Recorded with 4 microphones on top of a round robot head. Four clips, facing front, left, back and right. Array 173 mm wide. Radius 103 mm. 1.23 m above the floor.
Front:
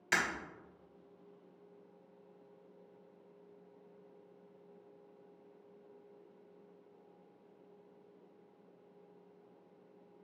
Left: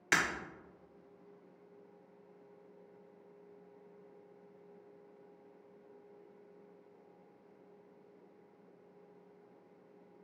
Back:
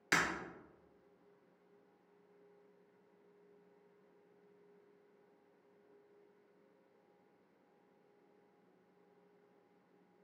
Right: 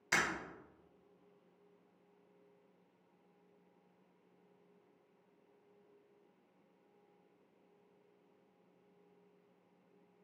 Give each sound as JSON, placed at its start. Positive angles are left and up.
{"t": 0.1, "sound": "breaking glass", "azimuth_deg": 125, "distance_m": 1.4}